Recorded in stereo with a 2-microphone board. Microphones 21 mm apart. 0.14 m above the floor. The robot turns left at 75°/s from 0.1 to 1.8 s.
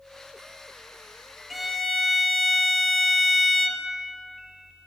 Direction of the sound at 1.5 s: 10° right (ahead or behind).